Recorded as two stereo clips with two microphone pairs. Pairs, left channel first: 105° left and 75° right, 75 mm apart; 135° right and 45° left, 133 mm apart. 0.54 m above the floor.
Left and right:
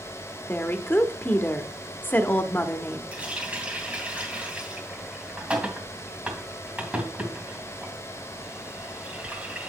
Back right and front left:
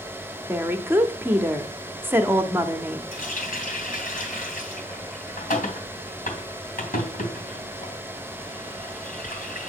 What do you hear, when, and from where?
0.5 s a woman speaking: 95° left, 0.9 m
3.1 s a running tap: 150° right, 3 m